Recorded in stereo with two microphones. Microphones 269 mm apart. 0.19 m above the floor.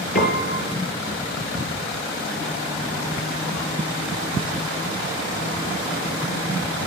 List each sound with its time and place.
0.1 s a piano: 30° left (ahead or behind), 4 m